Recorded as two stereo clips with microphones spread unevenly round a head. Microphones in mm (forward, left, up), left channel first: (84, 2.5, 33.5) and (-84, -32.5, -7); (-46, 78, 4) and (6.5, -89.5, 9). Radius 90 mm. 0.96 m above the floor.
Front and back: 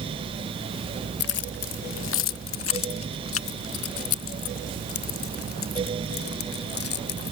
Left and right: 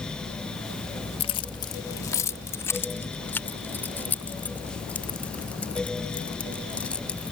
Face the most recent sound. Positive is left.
turn(degrees=25)